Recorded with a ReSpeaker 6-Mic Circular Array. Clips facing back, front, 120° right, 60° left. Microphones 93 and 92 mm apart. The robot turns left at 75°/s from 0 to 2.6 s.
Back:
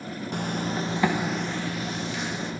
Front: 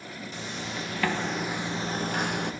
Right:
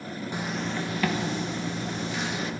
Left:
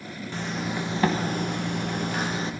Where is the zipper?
170° left, 1.2 m; by 2.5 s 5° left, 1.2 m.